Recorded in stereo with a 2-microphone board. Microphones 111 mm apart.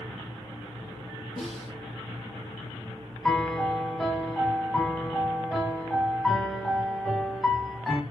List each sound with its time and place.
1.4 s a snare drum: centre (ahead or behind), 9 m
3.2 s a piano: 5° left (ahead or behind), 2.5 m